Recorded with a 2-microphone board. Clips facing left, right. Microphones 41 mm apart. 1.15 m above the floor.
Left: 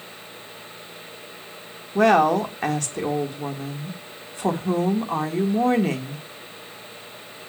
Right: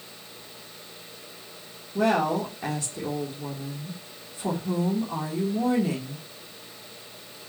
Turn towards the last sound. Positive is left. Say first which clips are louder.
# left 7 dB
turn(degrees=70)  # may be behind; listen again after turning